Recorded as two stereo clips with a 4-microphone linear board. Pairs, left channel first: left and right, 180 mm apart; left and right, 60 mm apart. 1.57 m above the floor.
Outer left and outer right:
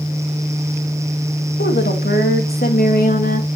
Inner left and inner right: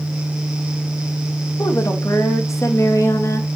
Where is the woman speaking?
70° left (ahead or behind), 2.5 m; by 3.5 s 50° left (ahead or behind), 3 m.